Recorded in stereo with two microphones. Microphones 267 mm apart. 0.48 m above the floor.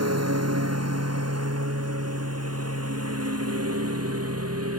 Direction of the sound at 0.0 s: 85° right.